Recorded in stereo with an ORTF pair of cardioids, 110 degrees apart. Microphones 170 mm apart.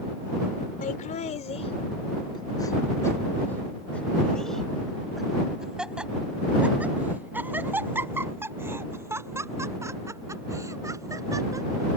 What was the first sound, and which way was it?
Laughter, 50° left.